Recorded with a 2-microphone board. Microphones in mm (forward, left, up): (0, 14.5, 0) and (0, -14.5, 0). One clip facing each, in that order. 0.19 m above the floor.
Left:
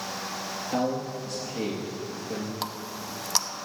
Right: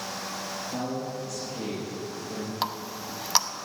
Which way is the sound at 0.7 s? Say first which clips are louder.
Left 6 dB; 65° left (ahead or behind).